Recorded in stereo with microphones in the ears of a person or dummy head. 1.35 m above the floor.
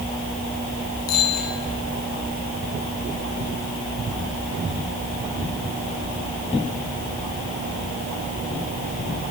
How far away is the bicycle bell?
About 10 m.